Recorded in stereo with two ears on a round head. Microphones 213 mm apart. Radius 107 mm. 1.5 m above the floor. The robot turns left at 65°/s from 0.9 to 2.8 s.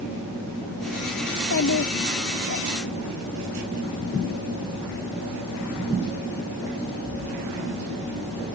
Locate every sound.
1.3 s a child speaking: 135° left; by 2.6 s 45° left